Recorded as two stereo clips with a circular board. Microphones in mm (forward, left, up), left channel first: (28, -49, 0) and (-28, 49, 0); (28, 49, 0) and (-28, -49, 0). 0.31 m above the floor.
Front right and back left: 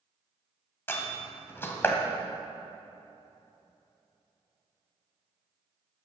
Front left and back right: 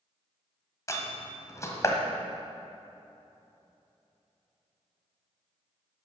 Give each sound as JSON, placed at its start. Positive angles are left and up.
{"t": 0.9, "sound": "a door slam", "azimuth_deg": 5, "distance_m": 1.5}